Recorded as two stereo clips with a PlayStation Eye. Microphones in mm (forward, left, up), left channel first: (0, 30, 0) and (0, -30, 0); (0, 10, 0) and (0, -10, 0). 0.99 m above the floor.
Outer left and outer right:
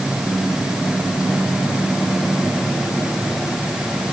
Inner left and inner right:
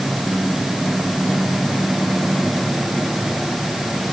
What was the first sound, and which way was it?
Only background noise.